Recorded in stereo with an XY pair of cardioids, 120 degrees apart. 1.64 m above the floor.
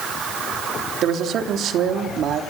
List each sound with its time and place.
1.0 s a man speaking: 60° right, 3.5 m